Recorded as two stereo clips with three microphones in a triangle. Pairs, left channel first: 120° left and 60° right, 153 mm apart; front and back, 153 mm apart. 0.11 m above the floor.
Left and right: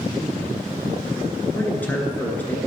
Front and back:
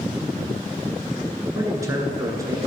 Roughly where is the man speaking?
Behind.